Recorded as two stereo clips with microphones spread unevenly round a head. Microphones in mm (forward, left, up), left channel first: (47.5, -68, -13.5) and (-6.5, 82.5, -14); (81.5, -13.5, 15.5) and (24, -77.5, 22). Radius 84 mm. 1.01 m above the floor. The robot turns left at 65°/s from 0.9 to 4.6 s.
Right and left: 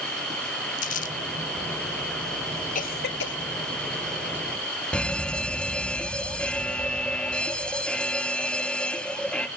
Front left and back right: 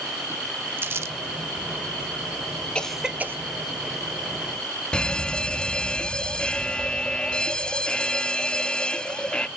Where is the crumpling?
80° right, 0.8 m; by 1.2 s 95° right, 0.8 m.